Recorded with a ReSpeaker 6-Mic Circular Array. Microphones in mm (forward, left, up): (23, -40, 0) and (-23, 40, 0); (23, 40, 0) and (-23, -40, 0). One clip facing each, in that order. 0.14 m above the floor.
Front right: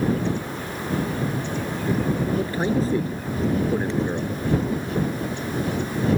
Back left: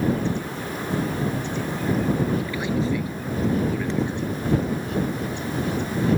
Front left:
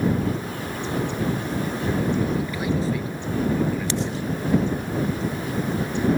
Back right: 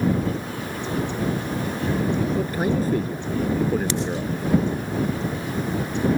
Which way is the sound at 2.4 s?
95° right.